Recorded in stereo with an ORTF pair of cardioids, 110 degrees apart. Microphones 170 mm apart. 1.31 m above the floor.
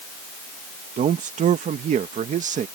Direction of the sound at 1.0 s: 45° right.